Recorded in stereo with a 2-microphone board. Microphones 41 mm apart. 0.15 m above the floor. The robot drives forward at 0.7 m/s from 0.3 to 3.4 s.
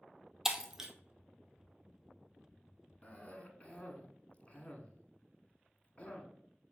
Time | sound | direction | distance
0.5 | breaking glass | 10° right (ahead or behind) | 0.8 m
3.0 | a cough | 30° left (ahead or behind) | 1.2 m